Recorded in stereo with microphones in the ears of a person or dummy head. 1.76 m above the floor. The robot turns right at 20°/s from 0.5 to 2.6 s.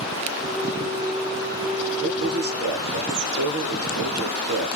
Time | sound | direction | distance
2.0 | a man speaking | 65° right (ahead or behind) | 0.8 m